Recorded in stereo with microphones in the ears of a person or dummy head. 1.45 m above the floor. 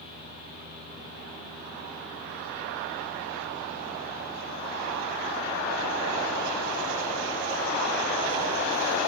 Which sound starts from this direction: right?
A fan, at 0.0 s.